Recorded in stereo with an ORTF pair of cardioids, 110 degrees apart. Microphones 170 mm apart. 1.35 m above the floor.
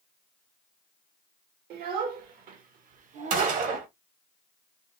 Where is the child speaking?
70° right, 1.8 m; by 3.6 s 40° right, 1.0 m.